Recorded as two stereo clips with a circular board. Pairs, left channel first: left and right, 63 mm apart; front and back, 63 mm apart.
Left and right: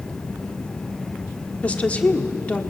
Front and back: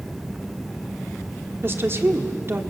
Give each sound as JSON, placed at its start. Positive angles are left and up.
{"t": 1.6, "sound": "a woman speaking", "azimuth_deg": 150, "distance_m": 1.5}